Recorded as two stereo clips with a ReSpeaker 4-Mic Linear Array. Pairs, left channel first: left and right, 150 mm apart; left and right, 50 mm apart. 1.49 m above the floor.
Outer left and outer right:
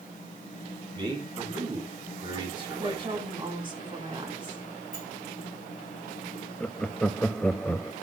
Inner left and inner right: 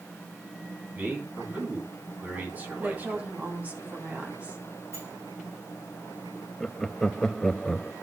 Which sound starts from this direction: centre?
Laughter, at 6.6 s.